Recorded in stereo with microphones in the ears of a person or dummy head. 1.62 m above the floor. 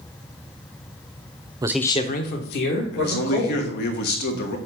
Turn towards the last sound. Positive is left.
turn(degrees=55)  # may be behind; listen again after turning